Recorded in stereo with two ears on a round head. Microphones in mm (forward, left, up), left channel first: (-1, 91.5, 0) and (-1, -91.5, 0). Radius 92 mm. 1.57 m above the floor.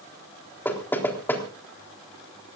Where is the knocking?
10° left (ahead or behind), 3.5 m.